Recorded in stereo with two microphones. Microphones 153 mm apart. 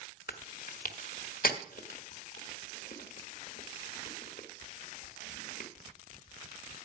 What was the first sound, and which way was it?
Chewing, 70° left (ahead or behind).